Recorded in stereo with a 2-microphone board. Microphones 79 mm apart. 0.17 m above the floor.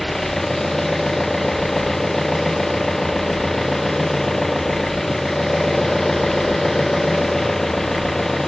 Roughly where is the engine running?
Centre.